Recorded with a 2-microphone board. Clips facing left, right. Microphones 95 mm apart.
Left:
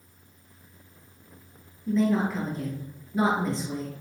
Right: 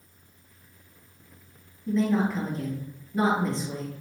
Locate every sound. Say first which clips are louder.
1.9 s a woman speaking: even; centre (ahead or behind), 1.9 m